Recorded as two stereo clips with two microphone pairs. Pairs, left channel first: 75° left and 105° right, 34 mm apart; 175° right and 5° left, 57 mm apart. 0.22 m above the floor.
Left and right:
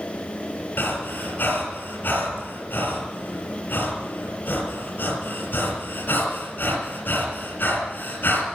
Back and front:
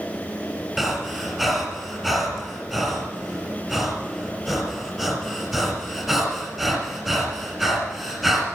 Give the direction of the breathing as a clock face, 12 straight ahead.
9 o'clock.